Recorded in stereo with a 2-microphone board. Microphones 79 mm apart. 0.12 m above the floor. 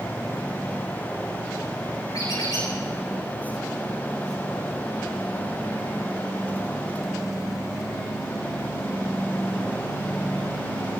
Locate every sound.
2.1 s a squeak: 80° left, 6 m